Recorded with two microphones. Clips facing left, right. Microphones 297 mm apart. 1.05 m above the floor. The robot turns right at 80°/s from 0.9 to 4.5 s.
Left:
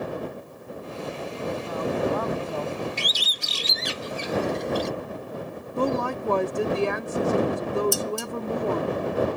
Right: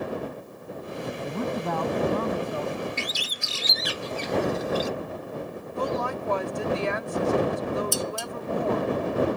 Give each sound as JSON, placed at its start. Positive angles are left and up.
{"t": 1.2, "sound": "a man speaking", "azimuth_deg": -115}
{"t": 3.0, "sound": "a bird", "side_deg": 40}
{"t": 5.8, "sound": "a woman speaking", "side_deg": 60}
{"t": 7.9, "sound": "dishes clattering", "side_deg": 60}